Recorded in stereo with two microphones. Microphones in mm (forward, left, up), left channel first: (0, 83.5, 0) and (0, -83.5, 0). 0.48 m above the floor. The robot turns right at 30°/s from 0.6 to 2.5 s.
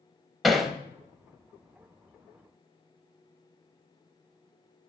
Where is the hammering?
Centre (ahead or behind), 0.7 m; by 0.7 s 5° right (ahead or behind), 0.7 m.